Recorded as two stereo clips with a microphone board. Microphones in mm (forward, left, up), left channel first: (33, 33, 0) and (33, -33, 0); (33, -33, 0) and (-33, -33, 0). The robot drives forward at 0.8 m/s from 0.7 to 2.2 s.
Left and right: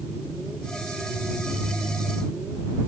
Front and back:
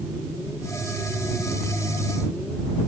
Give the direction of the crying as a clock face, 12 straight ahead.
No crying in this recording.